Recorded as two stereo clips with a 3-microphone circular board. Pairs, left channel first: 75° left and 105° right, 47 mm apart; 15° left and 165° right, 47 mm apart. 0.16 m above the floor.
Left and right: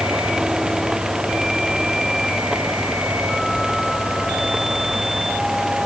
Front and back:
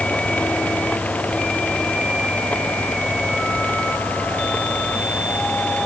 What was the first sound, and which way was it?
Only background noise.